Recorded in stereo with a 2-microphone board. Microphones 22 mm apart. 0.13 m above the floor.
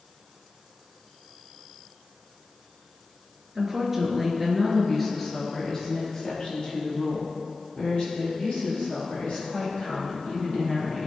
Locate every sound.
3.5 s a woman speaking: 15° right (ahead or behind), 2.5 m; by 11.1 s 65° left (ahead or behind), 7 m